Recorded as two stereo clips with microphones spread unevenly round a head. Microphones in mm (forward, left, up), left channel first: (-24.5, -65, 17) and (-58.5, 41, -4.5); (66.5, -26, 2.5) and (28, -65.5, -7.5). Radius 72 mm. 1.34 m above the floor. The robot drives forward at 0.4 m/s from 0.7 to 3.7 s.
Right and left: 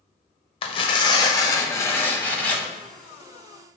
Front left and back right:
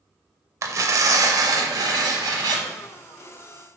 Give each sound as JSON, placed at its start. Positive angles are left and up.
{"t": 0.6, "sound": "tearing paper", "azimuth_deg": -100, "distance_m": 0.6}